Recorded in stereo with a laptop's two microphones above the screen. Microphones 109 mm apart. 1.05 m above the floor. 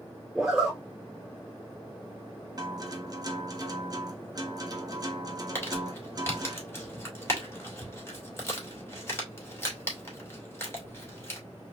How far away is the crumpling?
About 2.5 m.